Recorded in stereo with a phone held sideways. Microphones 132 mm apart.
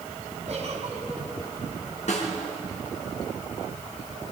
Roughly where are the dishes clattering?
No dishes clattering in this recording.